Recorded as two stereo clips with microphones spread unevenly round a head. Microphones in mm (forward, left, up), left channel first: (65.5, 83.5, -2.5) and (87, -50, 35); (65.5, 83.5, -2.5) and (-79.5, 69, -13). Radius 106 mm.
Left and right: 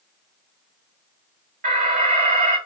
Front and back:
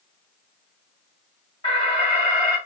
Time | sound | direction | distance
1.6 | an alarm | 60° right | 2 m